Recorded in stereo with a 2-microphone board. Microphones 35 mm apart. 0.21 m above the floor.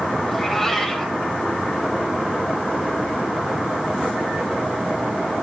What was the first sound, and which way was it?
A cat meowing, 5° left (ahead or behind).